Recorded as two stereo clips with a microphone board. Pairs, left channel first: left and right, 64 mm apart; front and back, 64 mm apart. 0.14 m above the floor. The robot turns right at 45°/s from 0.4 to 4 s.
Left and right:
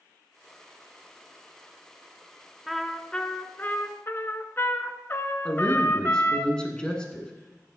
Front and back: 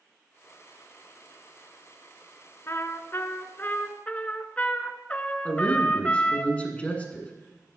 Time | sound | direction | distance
2.7 | a trumpet | straight ahead | 0.7 m
5.5 | a man speaking | 35° left | 1.5 m